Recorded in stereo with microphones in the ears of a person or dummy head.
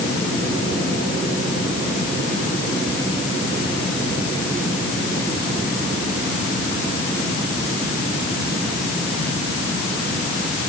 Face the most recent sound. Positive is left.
No sound to turn to.